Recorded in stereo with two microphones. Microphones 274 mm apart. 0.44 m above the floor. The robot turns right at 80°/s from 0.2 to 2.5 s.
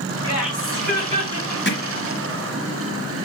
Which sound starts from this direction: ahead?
Laughter, at 0.2 s.